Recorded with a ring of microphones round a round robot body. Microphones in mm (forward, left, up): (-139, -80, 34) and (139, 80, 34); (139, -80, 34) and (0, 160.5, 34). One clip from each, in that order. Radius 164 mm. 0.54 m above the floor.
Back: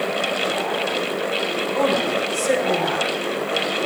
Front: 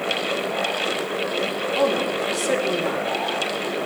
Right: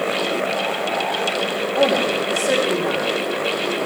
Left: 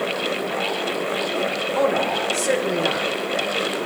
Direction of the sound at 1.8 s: 135° left.